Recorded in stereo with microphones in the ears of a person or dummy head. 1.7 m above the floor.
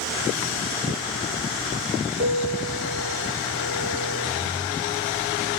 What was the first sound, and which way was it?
A piano, 65° right (ahead or behind).